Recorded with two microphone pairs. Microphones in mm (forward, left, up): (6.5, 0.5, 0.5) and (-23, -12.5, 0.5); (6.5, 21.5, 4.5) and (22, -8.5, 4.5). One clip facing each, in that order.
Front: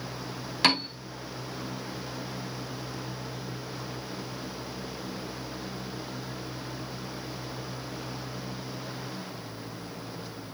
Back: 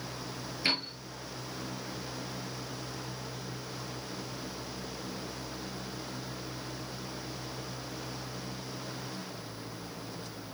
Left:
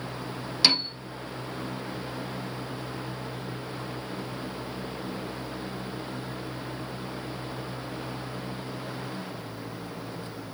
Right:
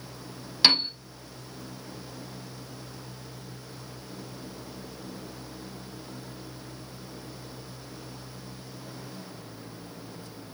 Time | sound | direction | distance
0.6 | a piano | 15° left | 2.5 m